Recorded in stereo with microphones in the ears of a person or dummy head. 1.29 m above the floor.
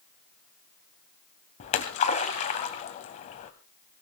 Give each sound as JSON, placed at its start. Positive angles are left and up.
{"t": 1.6, "sound": "a splash", "side_deg": 35, "distance_m": 1.6}